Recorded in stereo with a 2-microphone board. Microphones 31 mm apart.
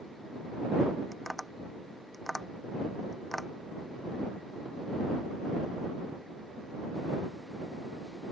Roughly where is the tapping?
Centre.